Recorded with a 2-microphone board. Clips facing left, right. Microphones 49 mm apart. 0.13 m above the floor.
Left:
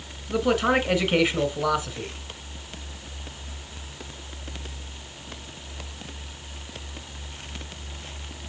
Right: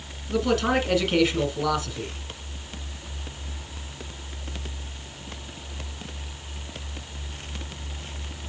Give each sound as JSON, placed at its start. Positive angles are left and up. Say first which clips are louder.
{"t": 0.3, "sound": "a man speaking", "louder": "left 1 dB", "side_deg": 15, "distance_m": 1.4}